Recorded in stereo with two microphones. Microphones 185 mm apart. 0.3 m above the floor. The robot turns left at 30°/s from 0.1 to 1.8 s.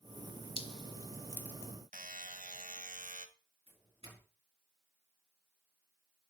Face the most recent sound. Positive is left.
turn(degrees=-30)  # may be behind; listen again after turning